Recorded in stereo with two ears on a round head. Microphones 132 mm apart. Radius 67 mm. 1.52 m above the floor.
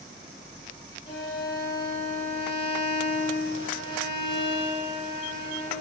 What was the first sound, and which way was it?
A violin, 40° left (ahead or behind).